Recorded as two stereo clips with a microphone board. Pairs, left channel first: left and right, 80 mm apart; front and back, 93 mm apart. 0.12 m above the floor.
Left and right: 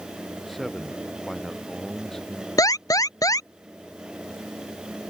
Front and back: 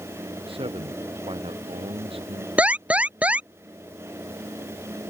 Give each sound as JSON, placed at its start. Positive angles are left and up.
{"t": 0.5, "sound": "a man speaking", "azimuth_deg": 180}
{"t": 2.6, "sound": "an alarm", "azimuth_deg": 110}